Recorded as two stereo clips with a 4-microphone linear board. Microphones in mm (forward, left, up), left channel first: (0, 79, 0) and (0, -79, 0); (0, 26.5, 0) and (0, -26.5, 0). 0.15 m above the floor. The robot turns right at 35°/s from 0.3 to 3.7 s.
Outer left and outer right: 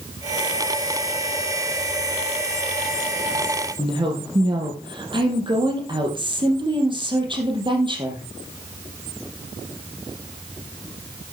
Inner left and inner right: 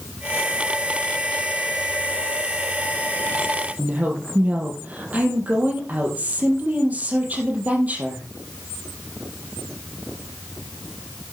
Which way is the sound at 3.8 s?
30° right (ahead or behind).